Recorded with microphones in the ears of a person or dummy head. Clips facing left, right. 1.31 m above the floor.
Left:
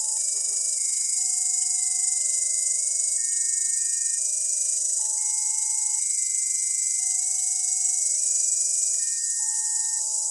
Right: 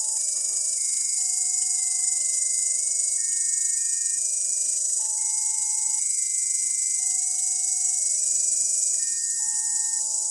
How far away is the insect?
About 1.2 m.